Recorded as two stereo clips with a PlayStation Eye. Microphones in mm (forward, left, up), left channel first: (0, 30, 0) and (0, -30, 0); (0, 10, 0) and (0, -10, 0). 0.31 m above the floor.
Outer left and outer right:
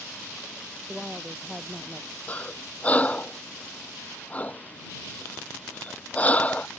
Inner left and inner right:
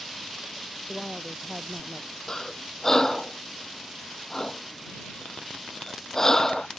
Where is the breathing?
25° left (ahead or behind).